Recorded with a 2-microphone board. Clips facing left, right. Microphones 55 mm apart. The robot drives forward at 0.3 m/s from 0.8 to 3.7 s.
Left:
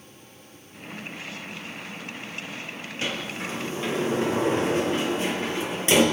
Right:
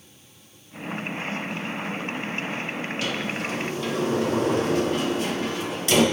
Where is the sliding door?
30° left (ahead or behind), 5 m; by 6.0 s 25° left (ahead or behind), 5 m.